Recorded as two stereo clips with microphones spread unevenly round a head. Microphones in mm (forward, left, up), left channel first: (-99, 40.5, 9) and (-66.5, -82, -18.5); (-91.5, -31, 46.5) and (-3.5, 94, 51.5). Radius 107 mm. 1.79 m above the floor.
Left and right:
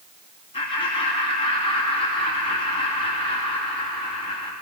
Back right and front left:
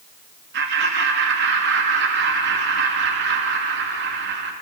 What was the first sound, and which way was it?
Laughter, 45° left.